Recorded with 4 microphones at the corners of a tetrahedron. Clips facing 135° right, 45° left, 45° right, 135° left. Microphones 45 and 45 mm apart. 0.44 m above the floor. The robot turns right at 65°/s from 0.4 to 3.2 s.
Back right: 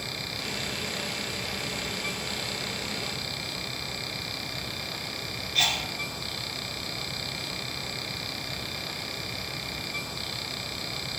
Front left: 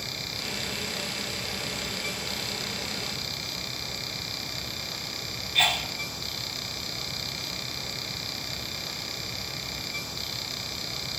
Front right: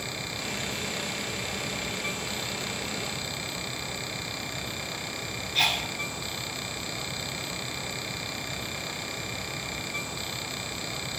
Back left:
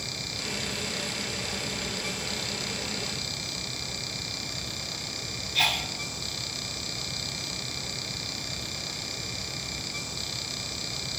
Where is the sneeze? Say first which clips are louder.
Front left 2 dB, even; 50° left, 1.4 m.